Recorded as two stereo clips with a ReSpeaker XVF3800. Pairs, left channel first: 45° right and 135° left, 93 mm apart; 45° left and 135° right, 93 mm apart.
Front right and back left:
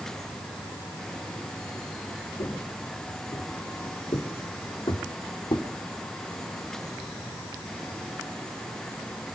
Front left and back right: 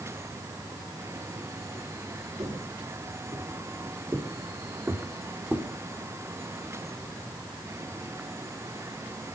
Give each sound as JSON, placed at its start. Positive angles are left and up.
{"t": 2.4, "sound": "footsteps", "azimuth_deg": -95, "distance_m": 4.0}